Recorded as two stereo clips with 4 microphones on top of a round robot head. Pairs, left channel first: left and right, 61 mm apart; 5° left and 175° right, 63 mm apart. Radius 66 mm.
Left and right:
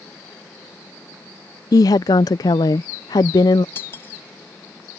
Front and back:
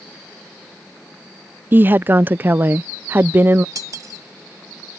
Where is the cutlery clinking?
155° left.